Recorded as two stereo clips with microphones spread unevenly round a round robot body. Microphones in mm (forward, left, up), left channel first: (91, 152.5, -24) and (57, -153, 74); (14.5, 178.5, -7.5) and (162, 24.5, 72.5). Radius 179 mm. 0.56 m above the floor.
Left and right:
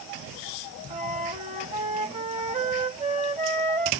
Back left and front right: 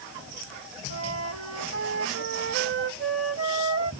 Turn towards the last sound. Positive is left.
turn(degrees=-25)